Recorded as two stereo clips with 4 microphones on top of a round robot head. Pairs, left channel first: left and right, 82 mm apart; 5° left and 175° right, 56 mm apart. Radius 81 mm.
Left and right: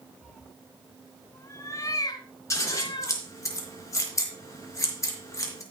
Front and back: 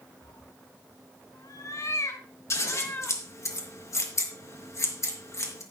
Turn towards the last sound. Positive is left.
turn(degrees=35)